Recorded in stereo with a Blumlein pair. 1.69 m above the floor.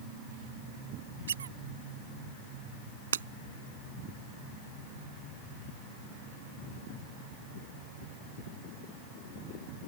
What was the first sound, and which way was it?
A squeak, 65° right.